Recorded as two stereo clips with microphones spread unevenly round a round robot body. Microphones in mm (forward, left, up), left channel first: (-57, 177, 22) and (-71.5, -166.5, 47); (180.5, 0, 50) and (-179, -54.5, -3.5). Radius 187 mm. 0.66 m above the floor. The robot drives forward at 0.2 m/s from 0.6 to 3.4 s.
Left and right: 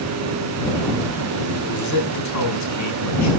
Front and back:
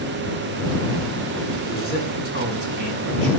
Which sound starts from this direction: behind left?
A man speaking, at 1.6 s.